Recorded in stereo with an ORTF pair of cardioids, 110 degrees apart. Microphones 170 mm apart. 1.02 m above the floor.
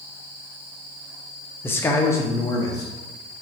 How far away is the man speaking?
About 0.7 m.